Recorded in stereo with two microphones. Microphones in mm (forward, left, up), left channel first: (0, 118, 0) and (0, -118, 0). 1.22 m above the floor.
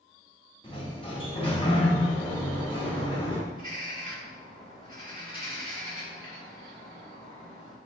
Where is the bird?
20° left (ahead or behind), 1.2 m.